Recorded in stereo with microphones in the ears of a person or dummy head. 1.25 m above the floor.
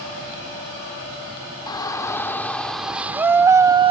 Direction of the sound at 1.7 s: 20° left (ahead or behind).